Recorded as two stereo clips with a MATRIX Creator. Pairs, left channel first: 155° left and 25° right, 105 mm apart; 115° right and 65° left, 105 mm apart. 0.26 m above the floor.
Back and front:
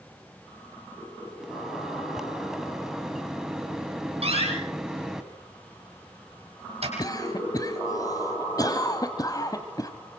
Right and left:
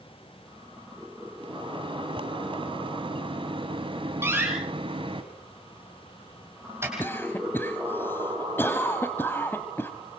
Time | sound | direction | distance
1.4 | a microwave | 60° left | 2.0 m
4.2 | a door slam | straight ahead | 6.5 m
7.0 | a cough | 175° right | 1.5 m